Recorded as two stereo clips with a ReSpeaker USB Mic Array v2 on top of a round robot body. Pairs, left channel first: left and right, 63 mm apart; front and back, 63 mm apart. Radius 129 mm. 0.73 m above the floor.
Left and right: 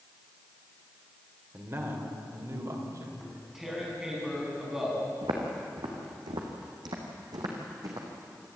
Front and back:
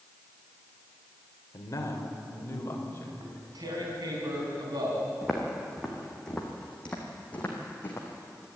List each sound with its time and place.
1.5 s a man speaking: 35° right, 3 m; by 3.1 s 55° right, 4 m
3.2 s tearing paper: 175° right, 4.5 m
5.2 s footsteps: 95° right, 3 m; by 8.5 s 55° right, 2.5 m